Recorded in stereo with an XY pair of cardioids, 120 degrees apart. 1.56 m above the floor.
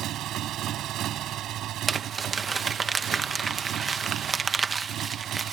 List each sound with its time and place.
0.0 s a motorcycle: 65° right
1.9 s crumpling: 30° right